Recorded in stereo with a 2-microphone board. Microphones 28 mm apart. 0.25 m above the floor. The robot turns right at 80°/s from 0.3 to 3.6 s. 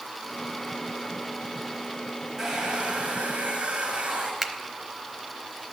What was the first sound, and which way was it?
A hair dryer, 150° right.